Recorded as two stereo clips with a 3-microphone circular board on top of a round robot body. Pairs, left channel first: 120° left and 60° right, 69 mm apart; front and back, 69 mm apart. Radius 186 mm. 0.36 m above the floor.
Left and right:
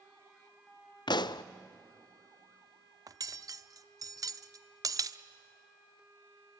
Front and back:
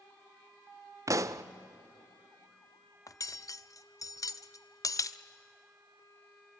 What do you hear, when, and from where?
1.1 s a pop: 135° left, 0.6 m
3.1 s cutlery clinking: 35° right, 0.8 m